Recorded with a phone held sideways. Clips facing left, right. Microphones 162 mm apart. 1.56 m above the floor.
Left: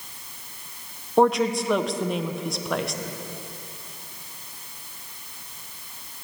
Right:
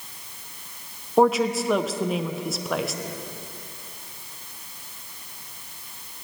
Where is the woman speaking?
Centre (ahead or behind), 0.6 m.